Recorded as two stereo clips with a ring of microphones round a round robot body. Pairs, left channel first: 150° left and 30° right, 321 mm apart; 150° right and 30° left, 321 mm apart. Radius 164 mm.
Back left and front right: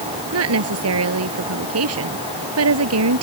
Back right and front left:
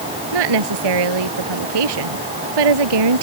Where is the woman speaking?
20° left.